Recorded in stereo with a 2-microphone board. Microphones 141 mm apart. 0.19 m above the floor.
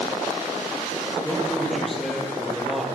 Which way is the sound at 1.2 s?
Centre (ahead or behind).